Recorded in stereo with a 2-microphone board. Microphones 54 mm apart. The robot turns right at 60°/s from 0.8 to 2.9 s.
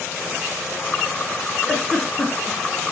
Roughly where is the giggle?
Centre.